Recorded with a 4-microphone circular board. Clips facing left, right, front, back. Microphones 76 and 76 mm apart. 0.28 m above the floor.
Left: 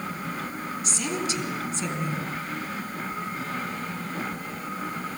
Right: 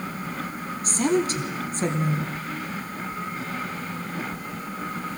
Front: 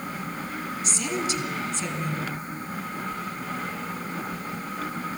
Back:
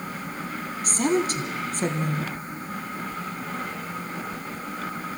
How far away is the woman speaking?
About 2.5 m.